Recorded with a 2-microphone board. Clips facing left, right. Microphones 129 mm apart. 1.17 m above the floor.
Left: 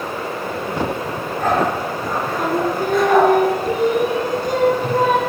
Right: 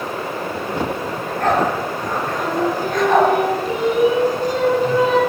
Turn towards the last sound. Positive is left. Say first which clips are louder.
# left 1 dB
turn(degrees=55)  # may be behind; listen again after turning